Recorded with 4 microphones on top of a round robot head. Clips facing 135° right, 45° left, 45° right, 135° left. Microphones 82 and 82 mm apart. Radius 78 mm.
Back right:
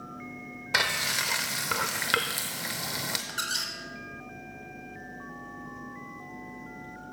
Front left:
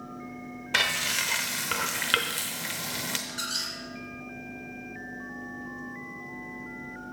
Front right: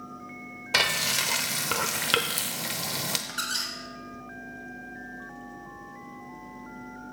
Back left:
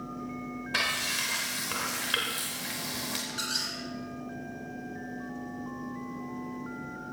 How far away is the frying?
About 0.6 m.